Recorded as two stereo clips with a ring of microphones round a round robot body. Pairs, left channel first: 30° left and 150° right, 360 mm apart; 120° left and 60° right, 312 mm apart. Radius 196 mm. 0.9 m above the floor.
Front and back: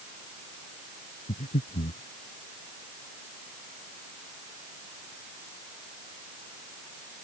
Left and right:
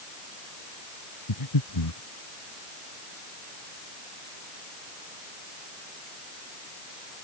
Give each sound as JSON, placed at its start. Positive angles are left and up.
{"t": 1.3, "sound": "breathing", "azimuth_deg": 105}